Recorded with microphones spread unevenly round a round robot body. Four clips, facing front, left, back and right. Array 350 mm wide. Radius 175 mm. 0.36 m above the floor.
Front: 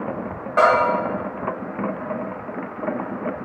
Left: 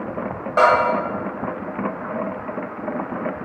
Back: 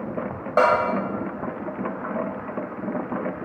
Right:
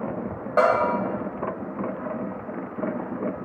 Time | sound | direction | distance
0.6 | a bell | 150° right | 1.3 m